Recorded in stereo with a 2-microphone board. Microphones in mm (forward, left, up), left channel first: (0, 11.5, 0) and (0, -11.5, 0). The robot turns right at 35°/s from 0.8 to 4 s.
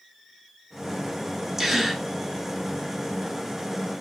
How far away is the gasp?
About 0.7 m.